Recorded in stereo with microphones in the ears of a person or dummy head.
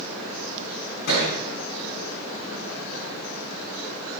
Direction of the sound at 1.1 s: 65° left (ahead or behind).